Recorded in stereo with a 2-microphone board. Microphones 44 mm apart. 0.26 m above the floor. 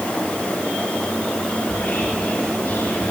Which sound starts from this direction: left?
Whispering, at 1.6 s.